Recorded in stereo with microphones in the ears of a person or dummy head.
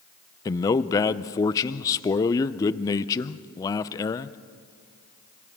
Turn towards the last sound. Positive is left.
turn(degrees=25)  # may be behind; listen again after turning